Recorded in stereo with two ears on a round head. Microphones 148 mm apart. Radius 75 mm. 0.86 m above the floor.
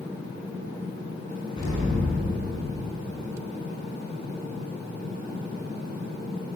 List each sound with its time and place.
1.6 s an explosion: 30° left (ahead or behind), 8.5 m